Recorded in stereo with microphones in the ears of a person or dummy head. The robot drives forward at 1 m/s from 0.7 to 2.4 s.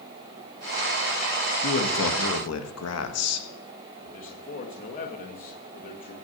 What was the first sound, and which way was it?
A man speaking, 60° left (ahead or behind).